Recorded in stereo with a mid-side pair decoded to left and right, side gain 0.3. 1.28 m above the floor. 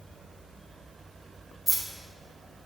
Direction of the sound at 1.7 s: 20° right.